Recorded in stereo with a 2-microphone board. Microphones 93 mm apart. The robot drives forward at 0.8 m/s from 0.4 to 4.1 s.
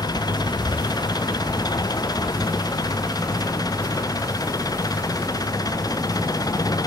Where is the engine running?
45° left (ahead or behind); by 6.9 s 40° left (ahead or behind).